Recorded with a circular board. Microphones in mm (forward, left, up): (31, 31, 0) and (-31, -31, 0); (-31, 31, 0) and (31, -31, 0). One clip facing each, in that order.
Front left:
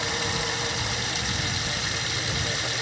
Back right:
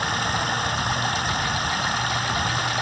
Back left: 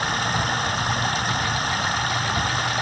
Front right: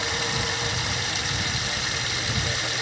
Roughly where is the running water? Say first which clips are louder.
Back right 5 dB, back left 5 dB; behind.